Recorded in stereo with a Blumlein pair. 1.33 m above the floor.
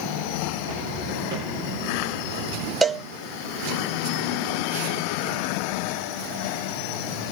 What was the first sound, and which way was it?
Footsteps, 70° right.